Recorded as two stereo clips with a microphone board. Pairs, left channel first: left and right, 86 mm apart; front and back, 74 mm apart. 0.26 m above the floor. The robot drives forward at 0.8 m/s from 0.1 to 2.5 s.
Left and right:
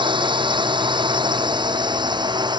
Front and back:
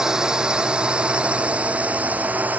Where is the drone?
100° right; by 2.6 s 115° right.